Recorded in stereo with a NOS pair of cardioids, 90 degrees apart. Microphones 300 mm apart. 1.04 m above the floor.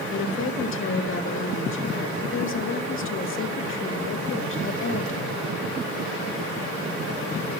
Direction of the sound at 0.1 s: 45° left.